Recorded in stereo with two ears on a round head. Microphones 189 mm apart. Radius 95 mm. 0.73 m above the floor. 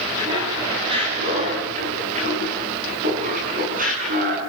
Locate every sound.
0.2 s laughter: 20° right (ahead or behind), 5.5 m; by 4.4 s 40° right (ahead or behind), 8 m